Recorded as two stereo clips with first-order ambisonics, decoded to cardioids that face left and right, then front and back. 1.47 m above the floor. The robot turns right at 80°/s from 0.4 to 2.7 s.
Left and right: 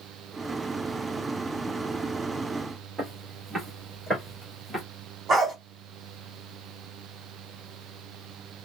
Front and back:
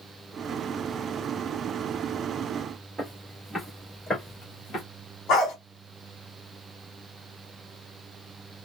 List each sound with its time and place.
3.0 s footsteps: 140° right, 1.5 m; by 4.8 s 5° right, 1.6 m
5.3 s a dog barking: 30° right, 1.3 m